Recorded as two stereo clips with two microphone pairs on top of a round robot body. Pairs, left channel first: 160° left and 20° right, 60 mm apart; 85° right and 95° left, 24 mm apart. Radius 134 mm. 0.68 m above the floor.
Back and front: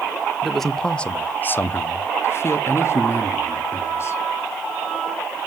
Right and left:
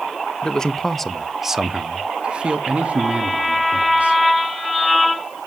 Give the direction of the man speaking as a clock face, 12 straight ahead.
4 o'clock.